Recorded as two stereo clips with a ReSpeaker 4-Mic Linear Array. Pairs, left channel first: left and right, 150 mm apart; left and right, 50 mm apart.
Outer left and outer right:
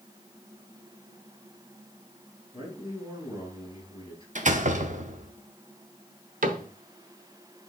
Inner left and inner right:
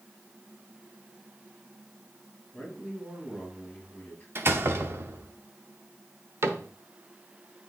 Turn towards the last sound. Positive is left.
turn(degrees=-65)  # may be behind; listen again after turning